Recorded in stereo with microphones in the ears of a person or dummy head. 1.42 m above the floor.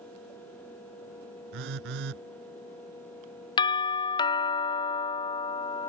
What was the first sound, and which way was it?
A phone buzzing, 65° right (ahead or behind).